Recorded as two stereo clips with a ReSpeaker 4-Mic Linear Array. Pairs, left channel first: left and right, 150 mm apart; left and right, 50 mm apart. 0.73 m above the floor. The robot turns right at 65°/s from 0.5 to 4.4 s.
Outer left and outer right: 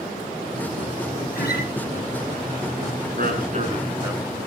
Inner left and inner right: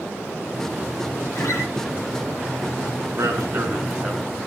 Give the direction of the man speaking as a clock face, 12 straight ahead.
3 o'clock.